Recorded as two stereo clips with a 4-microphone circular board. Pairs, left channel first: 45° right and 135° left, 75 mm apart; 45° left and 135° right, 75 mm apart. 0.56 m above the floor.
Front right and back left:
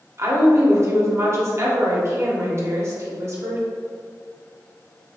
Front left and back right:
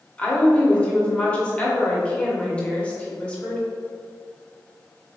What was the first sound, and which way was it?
A woman speaking, 110° left.